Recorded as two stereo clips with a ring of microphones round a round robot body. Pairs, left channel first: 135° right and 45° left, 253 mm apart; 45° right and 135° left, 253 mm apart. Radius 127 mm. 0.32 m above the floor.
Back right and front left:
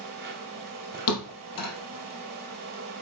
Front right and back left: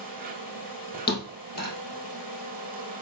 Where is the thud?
100° right, 3 m.